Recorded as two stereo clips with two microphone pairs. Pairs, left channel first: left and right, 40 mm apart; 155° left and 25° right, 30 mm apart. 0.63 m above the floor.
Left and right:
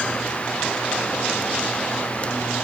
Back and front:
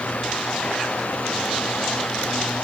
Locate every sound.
Only background noise.